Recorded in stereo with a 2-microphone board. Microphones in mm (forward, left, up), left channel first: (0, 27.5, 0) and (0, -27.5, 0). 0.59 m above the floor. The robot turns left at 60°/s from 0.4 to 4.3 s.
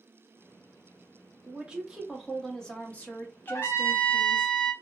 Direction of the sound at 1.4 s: 135° right.